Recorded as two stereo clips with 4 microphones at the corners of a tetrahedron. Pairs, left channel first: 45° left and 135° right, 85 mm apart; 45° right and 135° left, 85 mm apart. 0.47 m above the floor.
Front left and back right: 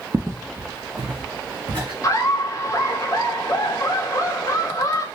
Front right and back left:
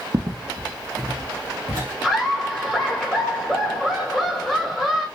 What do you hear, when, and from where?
0.1 s footsteps: 165° left, 0.9 m; by 1.9 s 175° right, 3.5 m
2.0 s laughter: 40° left, 1.6 m